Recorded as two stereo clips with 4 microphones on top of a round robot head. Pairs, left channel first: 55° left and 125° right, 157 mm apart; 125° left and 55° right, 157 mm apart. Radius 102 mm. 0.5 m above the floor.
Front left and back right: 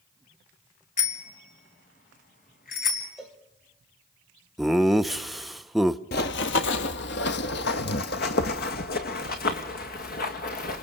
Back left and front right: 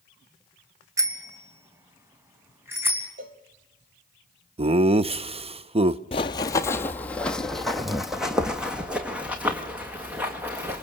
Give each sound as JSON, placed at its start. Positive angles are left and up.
{"t": 1.0, "sound": "a bicycle bell", "azimuth_deg": 15, "distance_m": 2.5}
{"t": 3.2, "sound": "a cowbell", "azimuth_deg": -35, "distance_m": 2.5}
{"t": 4.6, "sound": "laughter", "azimuth_deg": -35, "distance_m": 0.8}
{"t": 6.1, "sound": "running footsteps", "azimuth_deg": 70, "distance_m": 0.7}